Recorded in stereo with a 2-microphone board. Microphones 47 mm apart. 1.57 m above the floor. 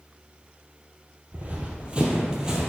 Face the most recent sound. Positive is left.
turn(degrees=-10)  # may be behind; listen again after turning